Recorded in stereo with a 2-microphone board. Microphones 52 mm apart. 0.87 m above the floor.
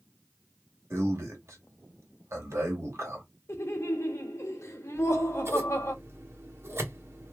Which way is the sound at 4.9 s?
55° right (ahead or behind).